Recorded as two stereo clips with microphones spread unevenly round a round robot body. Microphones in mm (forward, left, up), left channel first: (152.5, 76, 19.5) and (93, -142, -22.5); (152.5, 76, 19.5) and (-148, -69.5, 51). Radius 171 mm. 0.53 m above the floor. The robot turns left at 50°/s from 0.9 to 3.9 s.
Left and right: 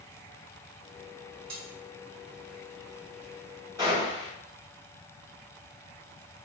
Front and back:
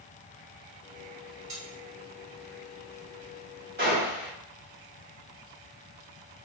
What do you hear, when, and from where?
1.5 s cutlery clinking: 120° right, 1.9 m; by 1.6 s 125° right, 1.9 m
3.8 s a gunshot: 145° left, 1.8 m; by 4.3 s 135° left, 1.8 m